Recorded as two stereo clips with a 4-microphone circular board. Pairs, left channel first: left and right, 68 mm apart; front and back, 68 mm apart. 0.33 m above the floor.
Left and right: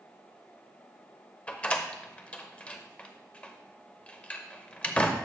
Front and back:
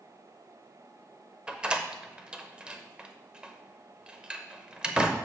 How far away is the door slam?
About 0.7 m.